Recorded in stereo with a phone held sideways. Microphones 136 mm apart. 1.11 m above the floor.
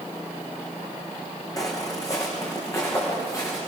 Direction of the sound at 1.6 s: 25° left (ahead or behind).